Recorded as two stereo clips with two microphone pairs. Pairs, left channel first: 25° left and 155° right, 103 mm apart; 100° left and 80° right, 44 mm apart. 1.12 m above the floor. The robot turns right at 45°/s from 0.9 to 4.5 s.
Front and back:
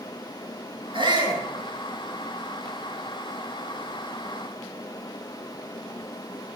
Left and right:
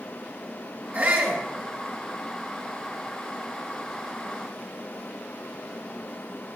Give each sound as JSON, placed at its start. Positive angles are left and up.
{"t": 0.9, "sound": "a shout", "azimuth_deg": -125, "distance_m": 6.0}